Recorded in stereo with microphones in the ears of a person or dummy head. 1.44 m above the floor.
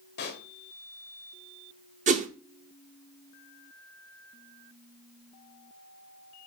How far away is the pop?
About 0.7 m.